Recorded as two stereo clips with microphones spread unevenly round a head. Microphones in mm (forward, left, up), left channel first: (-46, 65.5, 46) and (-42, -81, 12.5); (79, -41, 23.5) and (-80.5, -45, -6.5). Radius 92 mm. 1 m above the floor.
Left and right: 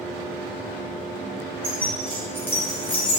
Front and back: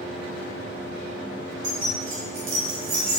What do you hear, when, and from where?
1.6 s keys jangling: 165° right, 2 m; by 3.2 s 130° left, 1.4 m